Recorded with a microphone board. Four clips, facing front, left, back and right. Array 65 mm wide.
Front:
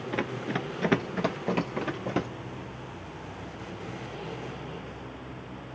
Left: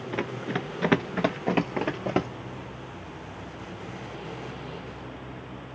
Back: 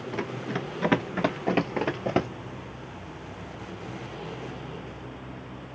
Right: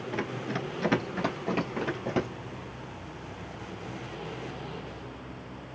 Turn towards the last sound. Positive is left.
turn(degrees=140)